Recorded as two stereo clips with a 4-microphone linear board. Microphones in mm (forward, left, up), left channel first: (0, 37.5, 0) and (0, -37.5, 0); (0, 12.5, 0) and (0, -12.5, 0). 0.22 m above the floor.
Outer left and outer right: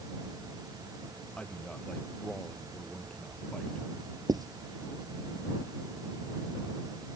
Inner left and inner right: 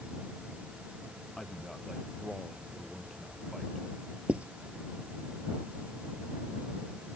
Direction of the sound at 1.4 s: 15° left (ahead or behind).